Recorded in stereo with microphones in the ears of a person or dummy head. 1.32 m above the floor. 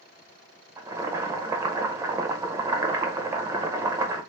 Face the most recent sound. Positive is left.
turn(degrees=-15)  # may be behind; listen again after turning